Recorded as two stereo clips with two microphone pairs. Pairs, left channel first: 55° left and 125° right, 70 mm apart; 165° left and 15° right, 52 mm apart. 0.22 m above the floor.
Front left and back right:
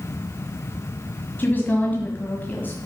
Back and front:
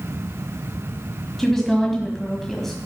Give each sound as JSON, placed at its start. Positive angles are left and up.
{"t": 1.4, "sound": "a woman speaking", "azimuth_deg": 85, "distance_m": 1.5}